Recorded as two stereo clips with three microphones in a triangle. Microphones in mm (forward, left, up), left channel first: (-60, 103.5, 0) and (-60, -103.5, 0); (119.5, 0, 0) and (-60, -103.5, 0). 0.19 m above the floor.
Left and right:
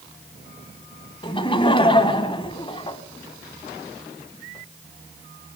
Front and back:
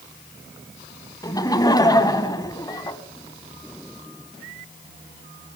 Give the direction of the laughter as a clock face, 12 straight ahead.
10 o'clock.